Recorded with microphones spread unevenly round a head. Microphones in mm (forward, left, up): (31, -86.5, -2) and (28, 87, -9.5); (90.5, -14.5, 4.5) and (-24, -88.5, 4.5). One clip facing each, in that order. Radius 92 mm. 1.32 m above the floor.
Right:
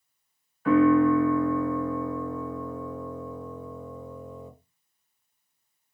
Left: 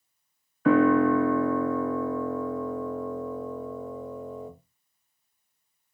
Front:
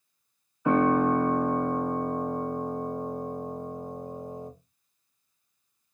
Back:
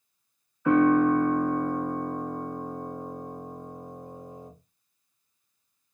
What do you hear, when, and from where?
0.7 s a piano: 105° left, 1.1 m